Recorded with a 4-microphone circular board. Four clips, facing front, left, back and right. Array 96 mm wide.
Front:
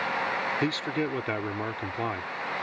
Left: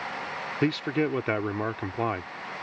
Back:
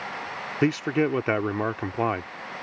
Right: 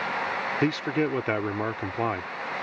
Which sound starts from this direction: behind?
A man speaking, at 0.6 s.